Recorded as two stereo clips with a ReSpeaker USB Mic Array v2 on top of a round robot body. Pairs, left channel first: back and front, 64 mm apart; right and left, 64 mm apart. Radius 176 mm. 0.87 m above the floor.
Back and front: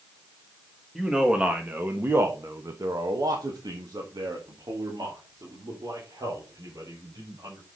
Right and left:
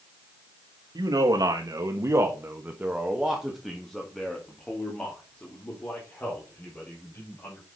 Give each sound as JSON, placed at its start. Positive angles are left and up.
{"t": 0.9, "sound": "a man speaking", "azimuth_deg": 80, "distance_m": 1.5}